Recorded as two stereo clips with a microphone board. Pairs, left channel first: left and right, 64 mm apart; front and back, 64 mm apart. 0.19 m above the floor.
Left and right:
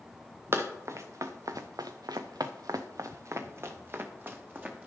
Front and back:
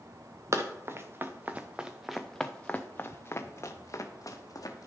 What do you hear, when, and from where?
0.5 s running footsteps: 140° right, 1.3 m; by 4.9 s 25° right, 1.8 m